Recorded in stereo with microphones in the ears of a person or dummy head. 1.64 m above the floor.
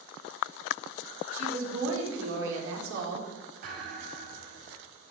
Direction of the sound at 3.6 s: 55° right (ahead or behind).